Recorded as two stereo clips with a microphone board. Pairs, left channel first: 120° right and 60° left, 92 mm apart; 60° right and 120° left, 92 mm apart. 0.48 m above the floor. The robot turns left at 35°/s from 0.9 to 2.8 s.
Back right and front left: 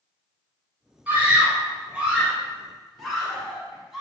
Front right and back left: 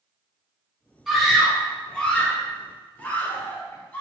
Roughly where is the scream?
Ahead left.